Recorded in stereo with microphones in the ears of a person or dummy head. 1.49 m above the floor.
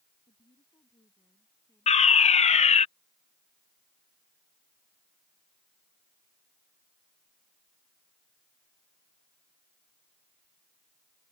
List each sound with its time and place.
0.2 s a woman speaking: 20° left (ahead or behind); by 2.9 s 5° left (ahead or behind)
1.9 s a fire alarm: 35° left (ahead or behind)